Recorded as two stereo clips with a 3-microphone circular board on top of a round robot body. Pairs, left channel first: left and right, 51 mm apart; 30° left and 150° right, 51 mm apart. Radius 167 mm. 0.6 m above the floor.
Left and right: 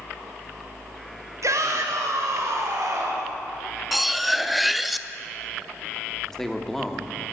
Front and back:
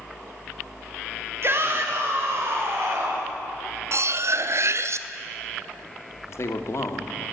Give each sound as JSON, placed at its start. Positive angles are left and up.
{"t": 1.4, "sound": "a shout", "azimuth_deg": -110, "distance_m": 1.8}
{"t": 3.9, "sound": "cutlery clinking", "azimuth_deg": 180, "distance_m": 0.7}
{"t": 6.3, "sound": "a man speaking", "azimuth_deg": 10, "distance_m": 1.7}